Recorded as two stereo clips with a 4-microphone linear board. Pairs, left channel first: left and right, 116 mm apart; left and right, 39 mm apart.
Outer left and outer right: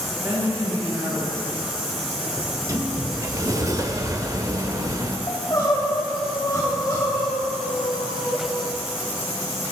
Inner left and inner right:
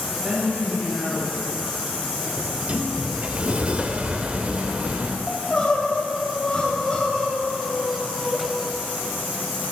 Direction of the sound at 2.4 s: 30° right (ahead or behind).